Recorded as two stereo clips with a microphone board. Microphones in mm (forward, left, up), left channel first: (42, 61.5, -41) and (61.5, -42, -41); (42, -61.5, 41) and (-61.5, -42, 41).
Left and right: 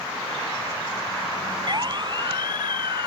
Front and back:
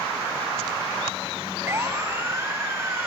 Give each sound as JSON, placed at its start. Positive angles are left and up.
{"t": 1.7, "sound": "a siren", "azimuth_deg": -125}